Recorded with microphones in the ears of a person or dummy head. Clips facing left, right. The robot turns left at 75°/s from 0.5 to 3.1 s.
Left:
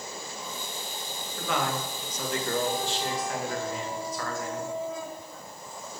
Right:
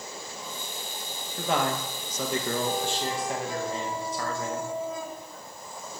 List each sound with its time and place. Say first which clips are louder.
1.4 s a man speaking: right 3 dB; 20° right, 0.8 m; by 4.7 s 150° right, 0.8 m